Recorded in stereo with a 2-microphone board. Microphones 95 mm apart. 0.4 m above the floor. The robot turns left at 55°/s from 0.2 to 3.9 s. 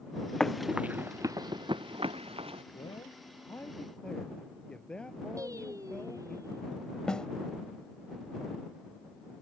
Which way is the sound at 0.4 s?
5° left (ahead or behind).